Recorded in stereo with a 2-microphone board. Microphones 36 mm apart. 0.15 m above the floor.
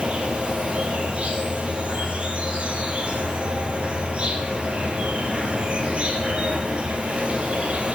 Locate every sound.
0.0 s an insect: 35° right (ahead or behind), 1.5 m